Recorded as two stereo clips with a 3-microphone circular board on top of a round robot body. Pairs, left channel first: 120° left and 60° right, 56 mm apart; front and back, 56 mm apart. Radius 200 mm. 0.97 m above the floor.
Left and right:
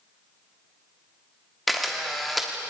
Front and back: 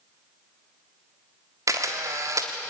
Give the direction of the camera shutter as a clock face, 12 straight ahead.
5 o'clock.